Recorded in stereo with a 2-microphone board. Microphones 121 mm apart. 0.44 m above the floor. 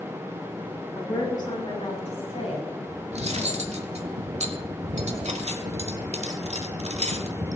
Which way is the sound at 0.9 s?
25° left (ahead or behind).